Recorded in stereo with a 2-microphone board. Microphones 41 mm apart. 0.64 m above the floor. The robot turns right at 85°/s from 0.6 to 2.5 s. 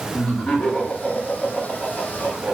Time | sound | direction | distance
0.1 | laughter | 30° left (ahead or behind) | 1.5 m